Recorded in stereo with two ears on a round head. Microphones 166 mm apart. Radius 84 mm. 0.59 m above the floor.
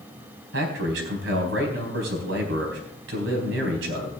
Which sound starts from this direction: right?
A man speaking, at 0.5 s.